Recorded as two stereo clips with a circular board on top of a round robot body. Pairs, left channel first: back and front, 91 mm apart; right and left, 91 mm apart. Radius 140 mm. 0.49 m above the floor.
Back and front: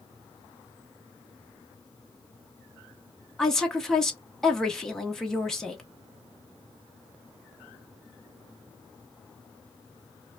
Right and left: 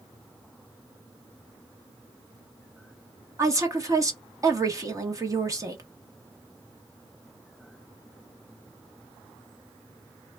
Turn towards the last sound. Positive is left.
turn(degrees=100)